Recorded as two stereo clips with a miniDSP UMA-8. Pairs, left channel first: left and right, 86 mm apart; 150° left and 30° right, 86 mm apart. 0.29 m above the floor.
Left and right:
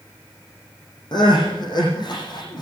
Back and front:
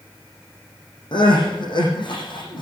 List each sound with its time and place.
1.1 s crying: 125° left, 9.5 m